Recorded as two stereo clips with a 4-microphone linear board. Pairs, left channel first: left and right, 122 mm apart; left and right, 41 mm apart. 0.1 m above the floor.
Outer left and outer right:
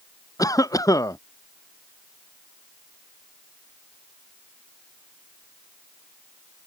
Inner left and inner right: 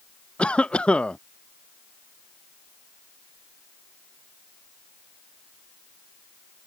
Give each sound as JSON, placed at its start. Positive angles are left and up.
{"t": 0.4, "sound": "a cough", "side_deg": 30}